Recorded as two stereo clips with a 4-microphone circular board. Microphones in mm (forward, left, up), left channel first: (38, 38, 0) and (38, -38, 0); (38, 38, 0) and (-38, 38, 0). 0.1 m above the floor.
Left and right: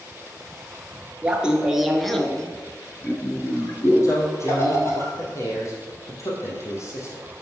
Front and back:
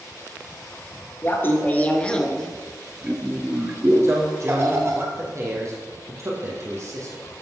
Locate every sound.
1.2 s laughter: 25° right, 1.5 m; by 5.0 s 135° left, 2.5 m
4.0 s a man speaking: 135° left, 3.5 m